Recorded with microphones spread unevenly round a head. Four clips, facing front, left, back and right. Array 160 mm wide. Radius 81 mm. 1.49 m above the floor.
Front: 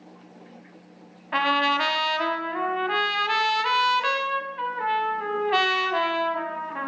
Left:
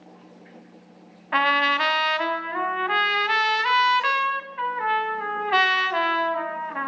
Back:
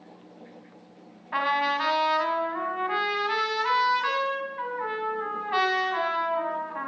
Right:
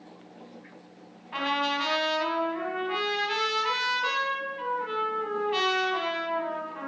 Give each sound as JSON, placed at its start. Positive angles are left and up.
{"t": 1.3, "sound": "a trumpet", "azimuth_deg": 40, "distance_m": 4.5}